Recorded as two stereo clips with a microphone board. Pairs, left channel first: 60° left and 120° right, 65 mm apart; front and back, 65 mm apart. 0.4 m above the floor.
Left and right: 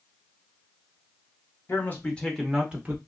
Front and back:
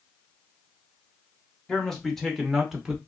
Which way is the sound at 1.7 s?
75° left.